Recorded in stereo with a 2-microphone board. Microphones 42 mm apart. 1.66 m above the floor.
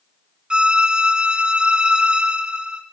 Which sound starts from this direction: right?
A violin, at 0.5 s.